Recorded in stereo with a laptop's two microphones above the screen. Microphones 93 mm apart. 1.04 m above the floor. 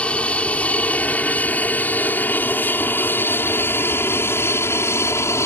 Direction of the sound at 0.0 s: 15° left (ahead or behind).